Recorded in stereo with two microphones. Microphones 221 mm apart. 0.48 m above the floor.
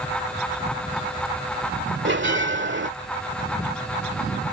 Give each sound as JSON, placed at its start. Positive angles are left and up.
{"t": 2.0, "sound": "a bell", "side_deg": -60}